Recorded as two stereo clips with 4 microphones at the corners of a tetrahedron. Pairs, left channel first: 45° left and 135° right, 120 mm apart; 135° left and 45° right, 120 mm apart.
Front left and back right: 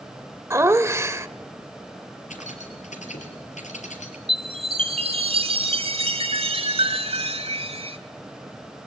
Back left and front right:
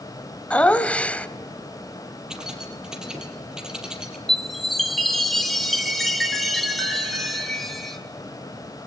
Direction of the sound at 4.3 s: 135° right.